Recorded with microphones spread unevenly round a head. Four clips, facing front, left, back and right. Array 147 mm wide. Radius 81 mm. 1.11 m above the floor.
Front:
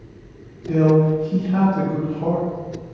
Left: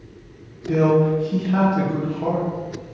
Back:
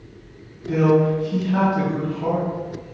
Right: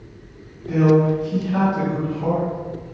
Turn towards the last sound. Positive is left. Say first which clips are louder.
# right 1 dB, front 1 dB
turn(degrees=40)